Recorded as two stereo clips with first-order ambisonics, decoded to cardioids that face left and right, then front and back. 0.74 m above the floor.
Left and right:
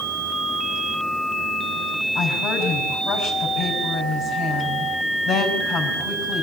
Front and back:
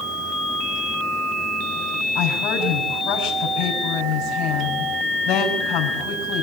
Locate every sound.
2.1 s a woman speaking: 40° left, 5 m